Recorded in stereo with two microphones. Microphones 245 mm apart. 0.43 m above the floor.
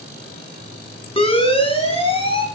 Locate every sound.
1.2 s a siren: 20° left (ahead or behind), 3 m